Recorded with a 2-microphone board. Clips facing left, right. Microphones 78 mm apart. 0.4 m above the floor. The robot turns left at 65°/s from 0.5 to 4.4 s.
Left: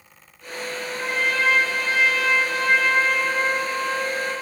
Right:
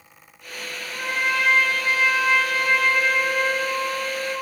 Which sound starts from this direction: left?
A trumpet, at 0.9 s.